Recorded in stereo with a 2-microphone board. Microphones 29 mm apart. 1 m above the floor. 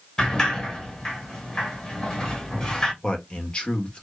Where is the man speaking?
35° left (ahead or behind), 1.6 m.